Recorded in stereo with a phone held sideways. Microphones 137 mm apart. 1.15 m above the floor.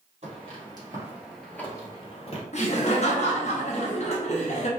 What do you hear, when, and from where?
0.2 s footsteps: 45° right (ahead or behind), 1.9 m; by 2.4 s 50° left (ahead or behind), 1.7 m
2.5 s laughter: 55° left (ahead or behind), 1.0 m